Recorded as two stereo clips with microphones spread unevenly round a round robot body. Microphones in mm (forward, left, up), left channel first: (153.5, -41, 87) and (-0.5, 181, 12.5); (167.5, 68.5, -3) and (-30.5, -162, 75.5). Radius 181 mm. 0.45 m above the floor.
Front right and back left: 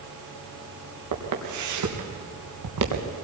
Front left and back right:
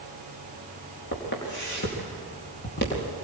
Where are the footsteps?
110° left, 5 m; by 3.1 s 115° left, 3.5 m.